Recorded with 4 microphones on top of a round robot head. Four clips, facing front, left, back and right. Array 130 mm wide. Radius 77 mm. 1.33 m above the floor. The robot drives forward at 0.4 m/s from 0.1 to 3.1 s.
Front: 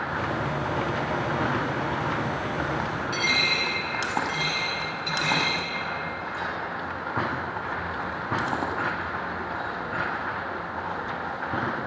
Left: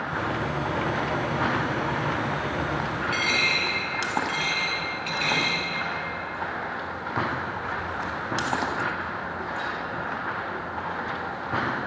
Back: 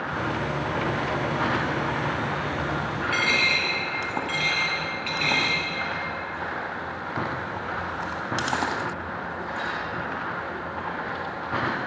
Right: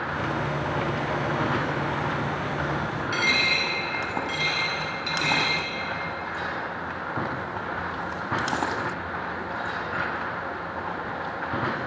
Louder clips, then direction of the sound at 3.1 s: Right 1 dB, back 2 dB; 150° right.